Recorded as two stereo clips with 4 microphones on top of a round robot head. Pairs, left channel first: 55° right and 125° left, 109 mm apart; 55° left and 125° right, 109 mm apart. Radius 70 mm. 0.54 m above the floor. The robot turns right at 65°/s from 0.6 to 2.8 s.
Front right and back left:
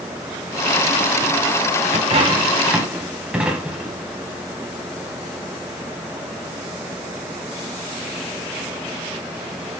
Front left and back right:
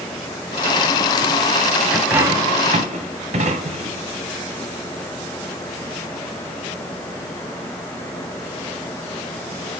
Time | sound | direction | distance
1.9 | a dropped coin | 150° left | 1.5 m